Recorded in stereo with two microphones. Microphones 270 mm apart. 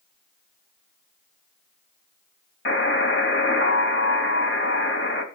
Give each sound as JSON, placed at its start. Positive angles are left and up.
{"t": 2.6, "sound": "a buzzer", "side_deg": 45, "distance_m": 2.5}